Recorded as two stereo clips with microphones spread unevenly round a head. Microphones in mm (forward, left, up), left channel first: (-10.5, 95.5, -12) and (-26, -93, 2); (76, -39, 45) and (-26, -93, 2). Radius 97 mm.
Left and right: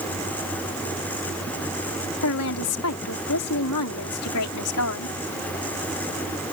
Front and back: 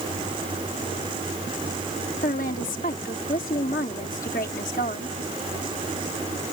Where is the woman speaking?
75° left.